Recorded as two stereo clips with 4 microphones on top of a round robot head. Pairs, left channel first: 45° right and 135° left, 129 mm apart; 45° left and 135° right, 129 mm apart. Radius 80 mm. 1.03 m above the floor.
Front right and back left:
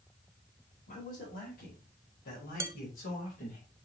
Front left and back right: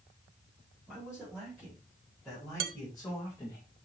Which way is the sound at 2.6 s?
150° right.